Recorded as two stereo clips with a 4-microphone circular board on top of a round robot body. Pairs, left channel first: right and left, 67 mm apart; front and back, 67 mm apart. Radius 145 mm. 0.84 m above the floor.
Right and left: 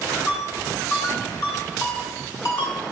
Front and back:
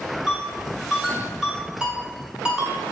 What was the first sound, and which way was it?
A ringtone, 105° right.